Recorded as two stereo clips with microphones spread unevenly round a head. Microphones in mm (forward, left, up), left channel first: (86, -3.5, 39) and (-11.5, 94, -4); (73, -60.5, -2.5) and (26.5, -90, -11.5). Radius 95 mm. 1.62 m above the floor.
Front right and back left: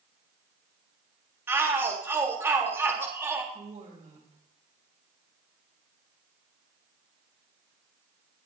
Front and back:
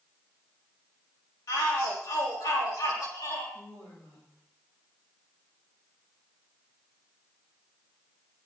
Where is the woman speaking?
105° left, 9.5 m.